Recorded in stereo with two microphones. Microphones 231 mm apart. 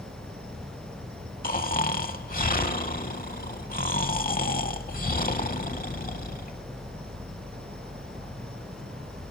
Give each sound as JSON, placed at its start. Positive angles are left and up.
{"t": 0.0, "sound": "an insect", "side_deg": -45, "distance_m": 4.0}
{"t": 1.4, "sound": "snoring", "side_deg": 40, "distance_m": 0.7}